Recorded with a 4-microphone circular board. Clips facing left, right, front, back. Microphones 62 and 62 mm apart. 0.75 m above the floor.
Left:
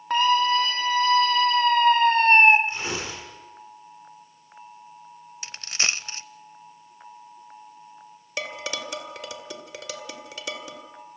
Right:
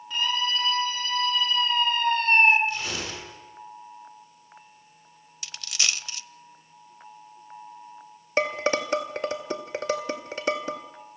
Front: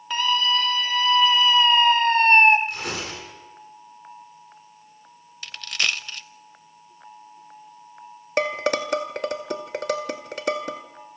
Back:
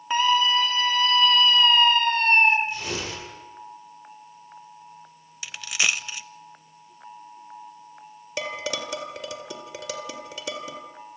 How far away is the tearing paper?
About 9 m.